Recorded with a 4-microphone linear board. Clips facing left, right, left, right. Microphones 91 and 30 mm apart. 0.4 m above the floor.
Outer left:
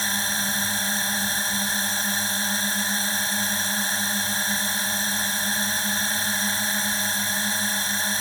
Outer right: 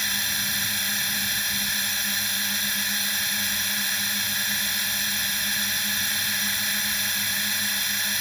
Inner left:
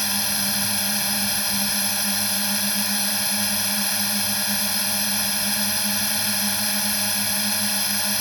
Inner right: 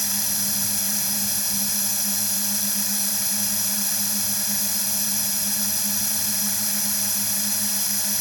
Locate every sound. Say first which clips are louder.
0.0 s a drone: outer left 4 dB, inner left 4 dB; 35° left (ahead or behind)